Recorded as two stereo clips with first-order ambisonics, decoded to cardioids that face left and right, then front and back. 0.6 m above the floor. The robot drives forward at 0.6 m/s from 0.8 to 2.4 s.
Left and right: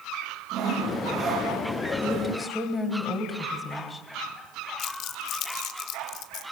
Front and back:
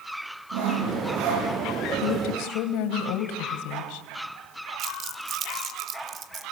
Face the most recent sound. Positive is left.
turn(degrees=125)